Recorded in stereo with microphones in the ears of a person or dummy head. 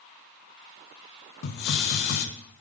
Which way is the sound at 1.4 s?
55° left (ahead or behind).